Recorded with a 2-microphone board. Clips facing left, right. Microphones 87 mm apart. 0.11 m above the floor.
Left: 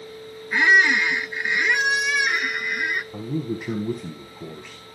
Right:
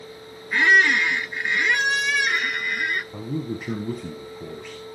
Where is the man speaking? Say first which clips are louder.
Left 1 dB; 5° left (ahead or behind), 2.0 m.